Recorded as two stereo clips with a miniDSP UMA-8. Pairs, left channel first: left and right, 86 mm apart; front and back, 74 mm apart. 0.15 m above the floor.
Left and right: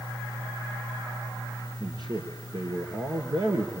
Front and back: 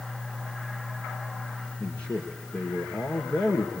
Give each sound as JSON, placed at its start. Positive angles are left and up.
{"t": 1.8, "sound": "a man speaking", "azimuth_deg": -75, "distance_m": 2.5}